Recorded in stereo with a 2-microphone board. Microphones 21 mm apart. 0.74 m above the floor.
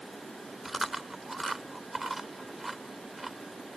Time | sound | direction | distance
0.7 | chewing | 5° right (ahead or behind) | ?